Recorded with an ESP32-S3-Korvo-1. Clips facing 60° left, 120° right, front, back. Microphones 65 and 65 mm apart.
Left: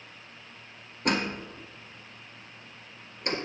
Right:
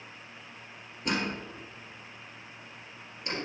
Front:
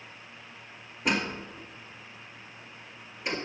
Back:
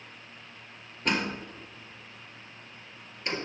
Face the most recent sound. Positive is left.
turn(degrees=80)